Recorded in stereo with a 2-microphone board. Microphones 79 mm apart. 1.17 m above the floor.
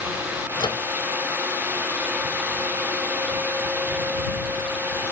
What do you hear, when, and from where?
0.6 s a microwave: 75° left (ahead or behind)